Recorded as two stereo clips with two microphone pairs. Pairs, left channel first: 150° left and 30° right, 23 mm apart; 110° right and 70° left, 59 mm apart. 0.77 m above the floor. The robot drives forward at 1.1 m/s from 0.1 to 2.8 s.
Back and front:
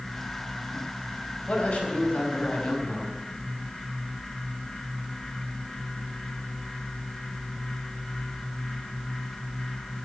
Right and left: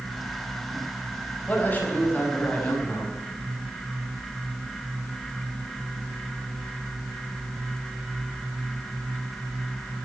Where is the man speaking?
175° right, 4.5 m.